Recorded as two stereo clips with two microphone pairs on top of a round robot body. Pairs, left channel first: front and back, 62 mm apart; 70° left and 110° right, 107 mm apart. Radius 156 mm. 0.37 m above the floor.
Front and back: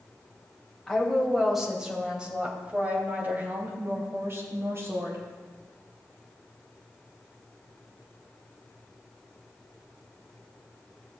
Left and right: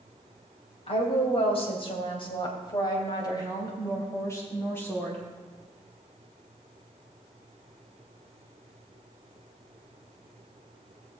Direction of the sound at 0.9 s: 85° left.